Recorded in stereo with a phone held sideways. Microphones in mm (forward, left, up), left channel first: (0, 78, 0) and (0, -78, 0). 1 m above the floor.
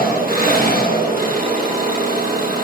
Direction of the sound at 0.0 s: 65° right (ahead or behind).